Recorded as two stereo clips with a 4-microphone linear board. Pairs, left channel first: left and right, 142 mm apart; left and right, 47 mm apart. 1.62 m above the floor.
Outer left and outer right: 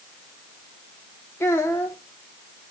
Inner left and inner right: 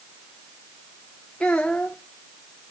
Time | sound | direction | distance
1.4 | a child speaking | 20° left (ahead or behind) | 0.7 m